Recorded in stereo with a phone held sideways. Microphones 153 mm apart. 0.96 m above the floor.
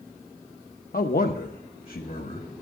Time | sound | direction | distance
0.9 | a man speaking | 70° left (ahead or behind) | 0.6 m